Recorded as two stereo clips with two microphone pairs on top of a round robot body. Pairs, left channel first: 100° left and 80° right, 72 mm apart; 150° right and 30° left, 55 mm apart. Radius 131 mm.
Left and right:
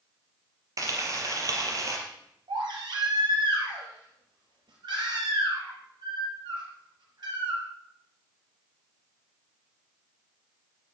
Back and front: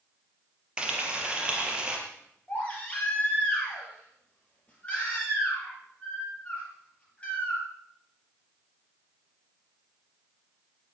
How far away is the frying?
About 4 m.